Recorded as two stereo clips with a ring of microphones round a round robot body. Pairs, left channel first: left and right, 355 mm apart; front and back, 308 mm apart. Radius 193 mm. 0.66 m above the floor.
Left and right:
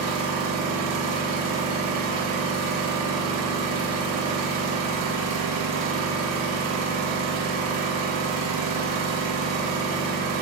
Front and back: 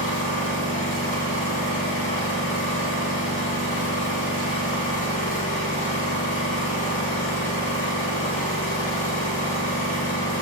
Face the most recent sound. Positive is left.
turn(degrees=-55)